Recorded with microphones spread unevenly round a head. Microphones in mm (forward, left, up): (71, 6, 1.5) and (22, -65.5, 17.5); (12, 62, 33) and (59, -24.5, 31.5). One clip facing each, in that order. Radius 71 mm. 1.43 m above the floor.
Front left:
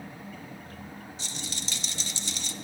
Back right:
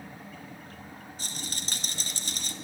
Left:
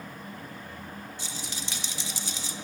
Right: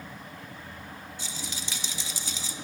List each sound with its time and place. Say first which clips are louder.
1.2 s a rattle: even, even; 80° right, 1.9 m